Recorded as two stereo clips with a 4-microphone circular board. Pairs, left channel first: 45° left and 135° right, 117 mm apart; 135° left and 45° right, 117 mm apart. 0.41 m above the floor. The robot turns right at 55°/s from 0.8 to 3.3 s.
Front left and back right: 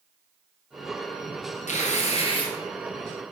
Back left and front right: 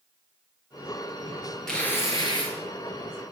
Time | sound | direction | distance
1.7 | tearing paper | 50° left | 3 m